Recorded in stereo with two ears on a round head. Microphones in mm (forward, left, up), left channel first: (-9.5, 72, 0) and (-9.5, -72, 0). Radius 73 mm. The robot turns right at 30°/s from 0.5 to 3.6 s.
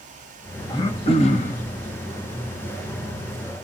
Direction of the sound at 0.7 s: 25° left (ahead or behind).